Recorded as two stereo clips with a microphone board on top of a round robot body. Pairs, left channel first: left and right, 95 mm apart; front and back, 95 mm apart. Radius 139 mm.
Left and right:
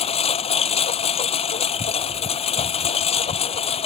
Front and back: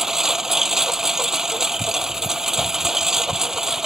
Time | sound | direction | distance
0.0 | a lawn mower | 95° left | ?